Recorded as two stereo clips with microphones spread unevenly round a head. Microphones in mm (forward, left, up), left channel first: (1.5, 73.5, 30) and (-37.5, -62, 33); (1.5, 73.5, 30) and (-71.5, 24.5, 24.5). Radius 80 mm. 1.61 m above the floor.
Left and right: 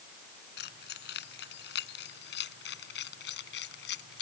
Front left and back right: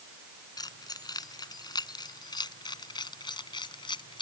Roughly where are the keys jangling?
Left.